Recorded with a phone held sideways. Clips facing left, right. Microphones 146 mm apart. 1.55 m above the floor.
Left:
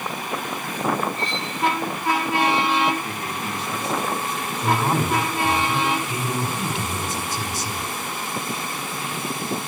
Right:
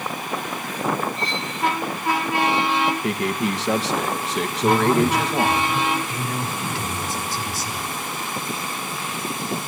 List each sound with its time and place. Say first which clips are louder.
1.2 s cutlery clinking: even; 40° right (ahead or behind), 8.5 m
3.0 s a man speaking: right 7 dB; 85° right, 1.6 m
4.6 s a man speaking: right 5 dB; 20° left (ahead or behind), 5 m